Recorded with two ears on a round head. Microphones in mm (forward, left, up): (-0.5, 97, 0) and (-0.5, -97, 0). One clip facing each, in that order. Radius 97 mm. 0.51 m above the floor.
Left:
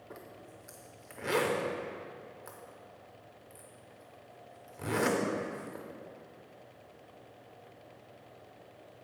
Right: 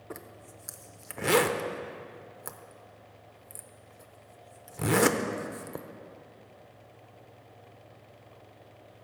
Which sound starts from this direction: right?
A zipper, at 0.1 s.